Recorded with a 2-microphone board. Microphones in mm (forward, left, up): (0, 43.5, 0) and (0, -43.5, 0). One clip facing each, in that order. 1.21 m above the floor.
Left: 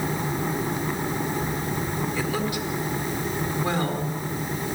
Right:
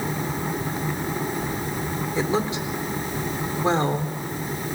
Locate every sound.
2.1 s a woman speaking: 25° right (ahead or behind), 4 m